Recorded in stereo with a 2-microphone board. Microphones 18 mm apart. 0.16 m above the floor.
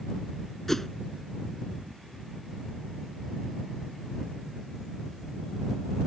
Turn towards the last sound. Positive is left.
turn(degrees=15)  # may be behind; listen again after turning